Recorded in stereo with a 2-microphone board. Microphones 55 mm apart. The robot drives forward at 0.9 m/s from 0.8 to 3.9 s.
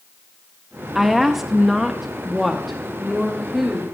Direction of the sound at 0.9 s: 5° right (ahead or behind).